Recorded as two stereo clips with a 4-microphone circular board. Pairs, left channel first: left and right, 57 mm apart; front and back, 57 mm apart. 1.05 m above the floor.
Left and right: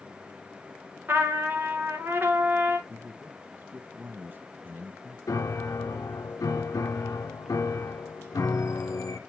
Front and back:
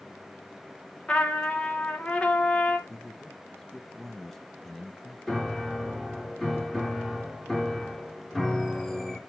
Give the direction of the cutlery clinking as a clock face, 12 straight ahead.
I don't hear cutlery clinking.